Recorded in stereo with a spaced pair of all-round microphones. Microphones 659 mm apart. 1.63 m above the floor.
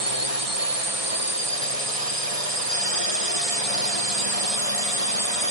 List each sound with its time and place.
0.0 s a drone: 55° right (ahead or behind)